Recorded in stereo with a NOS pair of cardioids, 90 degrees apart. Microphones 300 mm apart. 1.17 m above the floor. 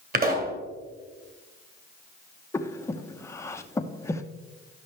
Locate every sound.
0.1 s a pop: 30° right, 2 m
2.5 s breathing: 10° left, 0.7 m